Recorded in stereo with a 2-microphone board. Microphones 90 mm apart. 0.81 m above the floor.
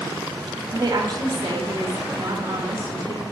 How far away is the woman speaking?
About 1.2 m.